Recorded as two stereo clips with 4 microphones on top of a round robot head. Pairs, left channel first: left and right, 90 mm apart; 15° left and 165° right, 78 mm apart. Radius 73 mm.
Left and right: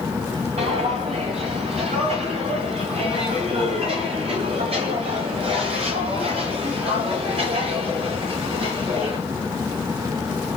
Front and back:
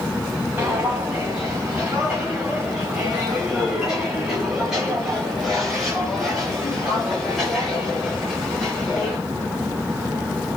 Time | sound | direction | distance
0.6 | footsteps | 90° right | 7.5 m